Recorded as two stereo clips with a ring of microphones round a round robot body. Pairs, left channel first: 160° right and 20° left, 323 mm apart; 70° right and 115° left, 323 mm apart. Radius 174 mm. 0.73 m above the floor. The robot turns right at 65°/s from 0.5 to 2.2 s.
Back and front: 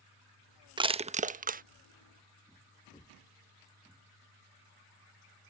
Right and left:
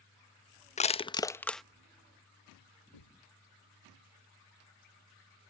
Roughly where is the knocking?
Right.